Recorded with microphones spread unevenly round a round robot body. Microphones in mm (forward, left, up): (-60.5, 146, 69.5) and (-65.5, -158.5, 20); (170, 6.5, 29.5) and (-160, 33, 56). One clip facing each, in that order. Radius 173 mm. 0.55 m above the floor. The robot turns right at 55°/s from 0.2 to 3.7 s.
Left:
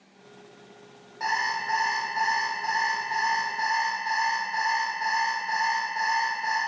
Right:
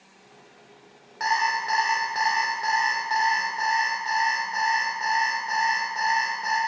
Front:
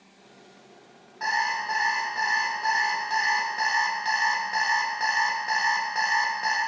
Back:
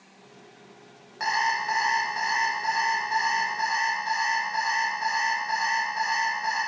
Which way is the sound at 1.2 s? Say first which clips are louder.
Right 4 dB, back 2 dB; 150° right.